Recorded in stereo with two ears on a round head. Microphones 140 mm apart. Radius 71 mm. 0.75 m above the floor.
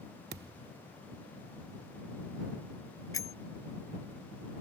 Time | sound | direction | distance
0.3 | a thud | 65° right (ahead or behind) | ?
3.1 | a bicycle bell | 20° left (ahead or behind) | ?